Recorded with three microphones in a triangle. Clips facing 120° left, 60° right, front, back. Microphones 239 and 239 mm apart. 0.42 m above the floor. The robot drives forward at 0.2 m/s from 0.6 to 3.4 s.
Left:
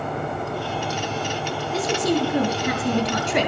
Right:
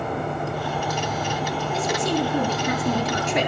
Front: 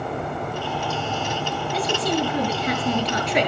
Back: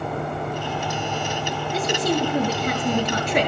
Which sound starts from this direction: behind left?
A woman speaking, at 1.7 s.